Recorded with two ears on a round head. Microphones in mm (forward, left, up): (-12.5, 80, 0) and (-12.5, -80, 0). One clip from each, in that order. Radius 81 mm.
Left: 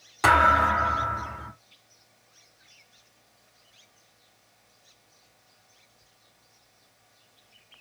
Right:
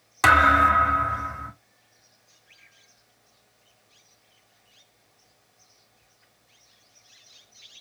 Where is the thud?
35° right (ahead or behind), 2 m.